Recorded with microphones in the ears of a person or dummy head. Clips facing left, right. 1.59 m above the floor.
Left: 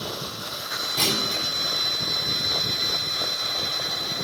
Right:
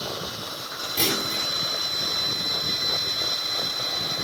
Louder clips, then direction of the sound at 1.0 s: Right 1 dB; 20° right (ahead or behind).